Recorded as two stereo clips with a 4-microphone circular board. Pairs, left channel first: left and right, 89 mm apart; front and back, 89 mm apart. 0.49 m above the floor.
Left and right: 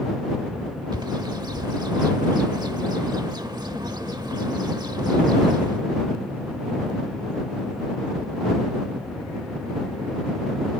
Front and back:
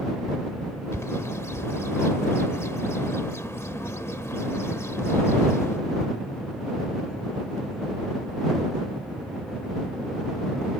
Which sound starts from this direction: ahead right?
A bird, at 0.9 s.